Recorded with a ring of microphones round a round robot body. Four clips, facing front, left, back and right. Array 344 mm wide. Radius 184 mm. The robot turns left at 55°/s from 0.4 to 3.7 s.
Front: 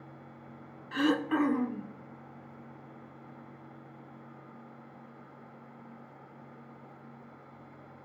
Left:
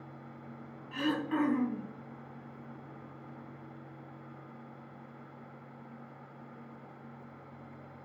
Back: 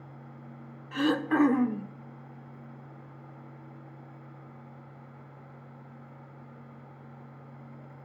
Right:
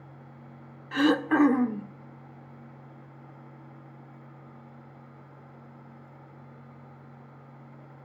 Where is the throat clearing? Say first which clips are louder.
Right 9 dB, back 2 dB; 85° right, 0.9 m; by 1.9 s 140° right, 0.9 m.